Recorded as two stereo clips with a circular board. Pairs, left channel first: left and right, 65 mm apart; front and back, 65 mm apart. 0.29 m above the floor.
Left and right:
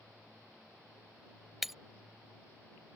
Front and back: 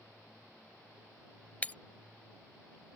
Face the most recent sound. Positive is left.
turn(degrees=-5)